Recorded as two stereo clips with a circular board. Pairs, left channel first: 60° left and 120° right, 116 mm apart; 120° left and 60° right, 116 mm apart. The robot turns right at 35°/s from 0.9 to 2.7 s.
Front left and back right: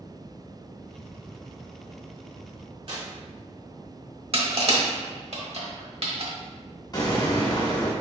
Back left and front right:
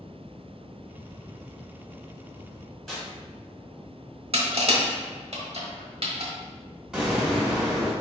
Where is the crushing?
90° right, 1.0 m.